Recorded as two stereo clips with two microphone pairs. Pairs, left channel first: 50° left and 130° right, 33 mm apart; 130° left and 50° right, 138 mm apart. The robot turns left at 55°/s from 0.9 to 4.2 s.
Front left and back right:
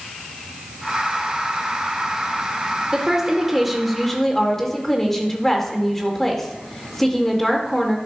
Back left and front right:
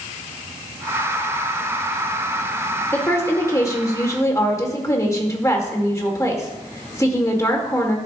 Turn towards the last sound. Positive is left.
turn(degrees=110)